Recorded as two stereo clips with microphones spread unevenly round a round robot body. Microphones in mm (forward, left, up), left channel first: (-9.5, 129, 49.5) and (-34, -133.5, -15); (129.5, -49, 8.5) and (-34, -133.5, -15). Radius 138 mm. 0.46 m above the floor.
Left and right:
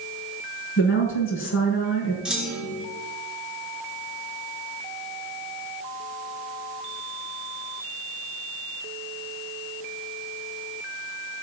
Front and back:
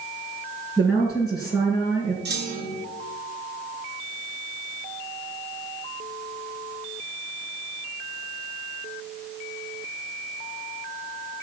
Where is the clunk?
175° right, 2.5 m.